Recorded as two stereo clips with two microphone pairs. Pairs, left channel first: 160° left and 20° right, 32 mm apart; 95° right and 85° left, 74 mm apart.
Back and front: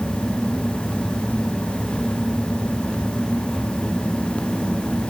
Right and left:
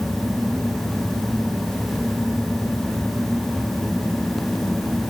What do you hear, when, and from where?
Only background noise.